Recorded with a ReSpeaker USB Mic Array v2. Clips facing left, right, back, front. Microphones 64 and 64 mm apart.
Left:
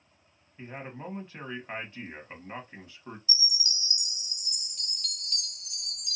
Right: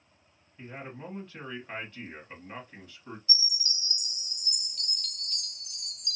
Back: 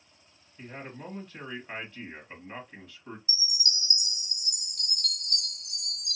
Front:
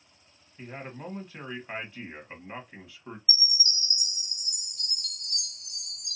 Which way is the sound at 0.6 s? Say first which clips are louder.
Left 1 dB, front 2 dB; 60° left.